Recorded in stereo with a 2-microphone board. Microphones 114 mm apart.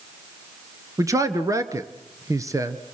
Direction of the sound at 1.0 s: 30° right (ahead or behind).